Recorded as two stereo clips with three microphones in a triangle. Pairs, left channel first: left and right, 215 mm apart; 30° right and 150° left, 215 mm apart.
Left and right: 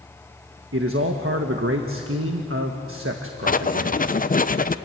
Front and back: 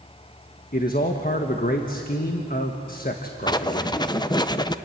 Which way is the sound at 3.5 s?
40° left.